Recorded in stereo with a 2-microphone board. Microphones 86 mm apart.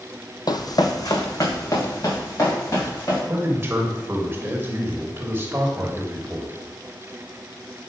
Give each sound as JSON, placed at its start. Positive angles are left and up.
{"t": 0.5, "sound": "running footsteps", "side_deg": 55, "distance_m": 0.5}
{"t": 3.3, "sound": "a man speaking", "side_deg": -30, "distance_m": 1.1}